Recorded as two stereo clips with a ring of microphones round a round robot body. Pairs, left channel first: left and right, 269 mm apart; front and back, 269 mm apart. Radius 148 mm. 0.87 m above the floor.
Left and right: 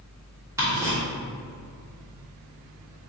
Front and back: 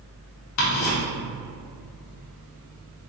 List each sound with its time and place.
0.6 s ticking: 10° right, 1.5 m